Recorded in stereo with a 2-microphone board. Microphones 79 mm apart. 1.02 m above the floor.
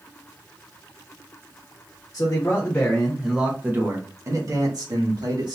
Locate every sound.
2.1 s a man speaking: 35° left (ahead or behind), 1.1 m; by 5.6 s 65° right (ahead or behind), 1.8 m